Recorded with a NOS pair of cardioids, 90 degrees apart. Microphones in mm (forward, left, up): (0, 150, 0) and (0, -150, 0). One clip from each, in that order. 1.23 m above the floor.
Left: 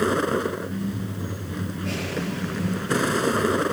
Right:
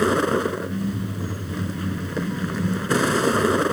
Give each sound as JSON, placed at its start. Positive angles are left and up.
{"t": 0.0, "sound": "a vehicle", "azimuth_deg": -20}